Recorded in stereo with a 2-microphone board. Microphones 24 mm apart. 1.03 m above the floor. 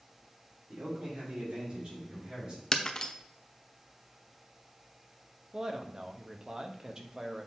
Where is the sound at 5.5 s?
25° right (ahead or behind), 1.0 m.